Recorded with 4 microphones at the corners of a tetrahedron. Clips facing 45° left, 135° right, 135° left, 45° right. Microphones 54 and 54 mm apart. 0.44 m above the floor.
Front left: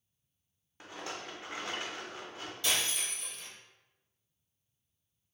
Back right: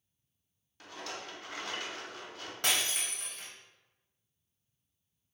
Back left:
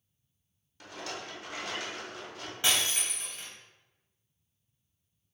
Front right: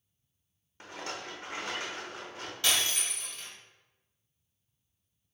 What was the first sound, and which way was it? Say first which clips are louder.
A rattle: front left 1 dB, front right 1 dB; 10° right.